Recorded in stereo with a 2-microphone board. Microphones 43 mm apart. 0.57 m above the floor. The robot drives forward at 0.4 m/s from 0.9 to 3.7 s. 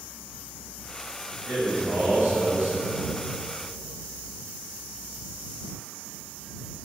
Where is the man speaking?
65° right (ahead or behind), 2.5 m; by 3.1 s 75° right (ahead or behind), 2.5 m.